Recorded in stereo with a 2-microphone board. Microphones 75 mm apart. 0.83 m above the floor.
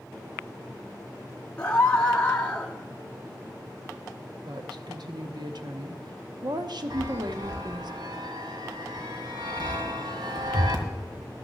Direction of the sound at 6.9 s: 75° right (ahead or behind).